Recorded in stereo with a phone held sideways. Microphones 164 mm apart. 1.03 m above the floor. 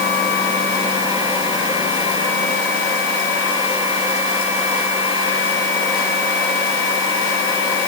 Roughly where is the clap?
No clap in this recording.